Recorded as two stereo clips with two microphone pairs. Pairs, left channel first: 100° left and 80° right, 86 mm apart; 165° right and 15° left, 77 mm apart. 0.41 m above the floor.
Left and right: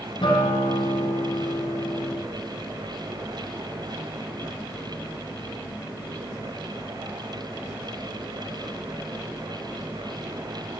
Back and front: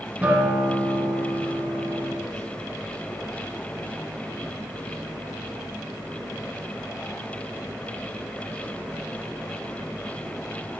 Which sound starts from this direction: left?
A guitar, at 0.2 s.